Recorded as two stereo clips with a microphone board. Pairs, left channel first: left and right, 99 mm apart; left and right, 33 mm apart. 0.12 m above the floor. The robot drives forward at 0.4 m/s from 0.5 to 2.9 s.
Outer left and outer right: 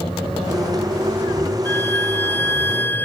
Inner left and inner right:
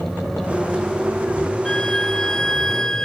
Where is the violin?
20° left (ahead or behind).